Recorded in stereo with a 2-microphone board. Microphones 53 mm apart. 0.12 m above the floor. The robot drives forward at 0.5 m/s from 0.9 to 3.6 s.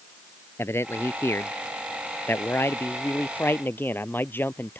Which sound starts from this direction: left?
A man speaking, at 0.6 s.